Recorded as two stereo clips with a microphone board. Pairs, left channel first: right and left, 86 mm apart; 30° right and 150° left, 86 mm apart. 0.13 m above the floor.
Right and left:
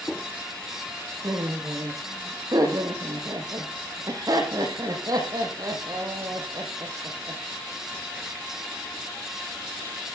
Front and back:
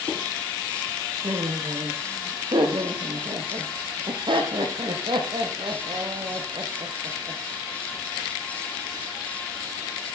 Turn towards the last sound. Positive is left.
turn(degrees=130)